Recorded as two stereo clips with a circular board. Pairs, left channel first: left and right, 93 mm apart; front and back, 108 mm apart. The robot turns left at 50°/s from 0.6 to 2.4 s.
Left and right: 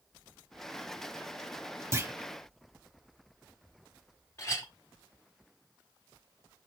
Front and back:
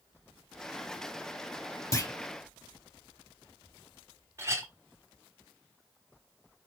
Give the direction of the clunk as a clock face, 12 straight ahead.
1 o'clock.